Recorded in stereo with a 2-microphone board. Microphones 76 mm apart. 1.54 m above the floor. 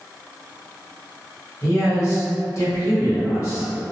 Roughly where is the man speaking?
Left.